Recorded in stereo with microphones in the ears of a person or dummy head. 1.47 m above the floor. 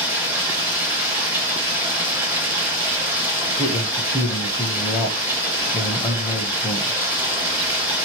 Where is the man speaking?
10° left (ahead or behind), 0.6 m.